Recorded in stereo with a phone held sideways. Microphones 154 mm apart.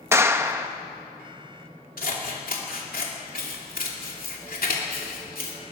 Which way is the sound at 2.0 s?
65° left (ahead or behind).